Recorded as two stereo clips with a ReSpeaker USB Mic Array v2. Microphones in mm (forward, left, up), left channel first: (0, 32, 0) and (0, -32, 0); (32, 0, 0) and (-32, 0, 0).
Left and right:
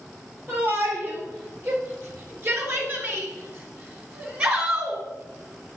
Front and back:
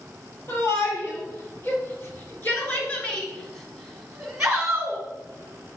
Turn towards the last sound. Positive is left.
turn(degrees=-140)